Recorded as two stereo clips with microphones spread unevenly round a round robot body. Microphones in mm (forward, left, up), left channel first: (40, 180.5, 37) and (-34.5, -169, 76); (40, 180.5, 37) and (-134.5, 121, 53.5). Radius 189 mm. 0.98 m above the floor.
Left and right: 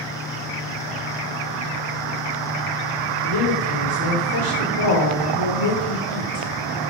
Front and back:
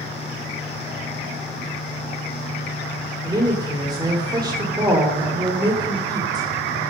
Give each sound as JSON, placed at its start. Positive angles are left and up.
{"t": 3.2, "sound": "a woman speaking", "azimuth_deg": 130, "distance_m": 3.0}